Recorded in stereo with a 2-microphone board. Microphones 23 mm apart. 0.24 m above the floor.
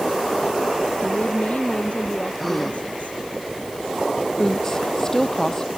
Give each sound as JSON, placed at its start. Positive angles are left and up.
{"t": 1.0, "sound": "a woman speaking", "side_deg": 65}
{"t": 2.4, "sound": "a gasp", "side_deg": 5}
{"t": 4.4, "sound": "a woman speaking", "side_deg": 20}